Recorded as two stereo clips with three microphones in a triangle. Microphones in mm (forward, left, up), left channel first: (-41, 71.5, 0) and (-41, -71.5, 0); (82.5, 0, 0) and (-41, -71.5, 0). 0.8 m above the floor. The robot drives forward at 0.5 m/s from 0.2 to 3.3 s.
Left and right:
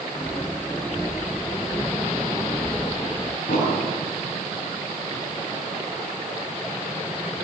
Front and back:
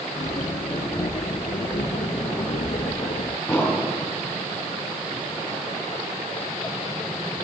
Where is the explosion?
105° left, 6.5 m.